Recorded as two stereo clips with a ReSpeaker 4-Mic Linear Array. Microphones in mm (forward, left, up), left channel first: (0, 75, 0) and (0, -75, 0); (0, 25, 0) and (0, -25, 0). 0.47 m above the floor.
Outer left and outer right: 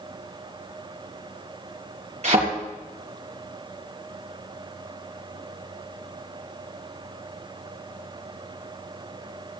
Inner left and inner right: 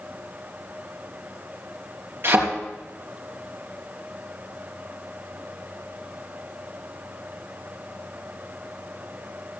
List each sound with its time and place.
2.2 s a thud: 45° right (ahead or behind), 3.5 m